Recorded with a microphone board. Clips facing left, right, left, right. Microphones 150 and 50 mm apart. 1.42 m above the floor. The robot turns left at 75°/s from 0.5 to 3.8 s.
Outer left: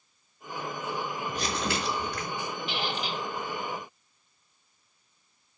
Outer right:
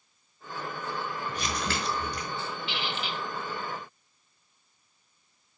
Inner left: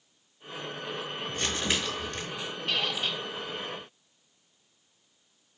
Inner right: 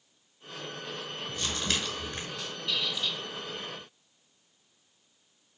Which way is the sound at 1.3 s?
50° left.